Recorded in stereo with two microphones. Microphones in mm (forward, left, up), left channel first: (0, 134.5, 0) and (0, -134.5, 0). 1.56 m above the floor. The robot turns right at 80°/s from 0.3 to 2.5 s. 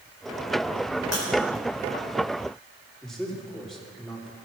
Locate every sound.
1.1 s breaking glass: 70° right (ahead or behind), 4 m; by 1.2 s 80° right, 4 m
3.0 s a man speaking: centre (ahead or behind), 3 m